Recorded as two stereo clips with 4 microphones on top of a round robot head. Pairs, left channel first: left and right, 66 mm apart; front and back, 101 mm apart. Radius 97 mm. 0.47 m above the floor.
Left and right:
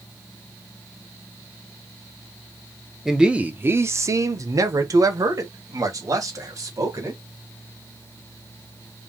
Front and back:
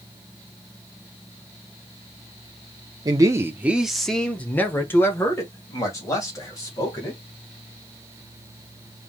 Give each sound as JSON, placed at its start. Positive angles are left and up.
{"t": 3.0, "sound": "a man speaking", "azimuth_deg": -175, "distance_m": 0.9}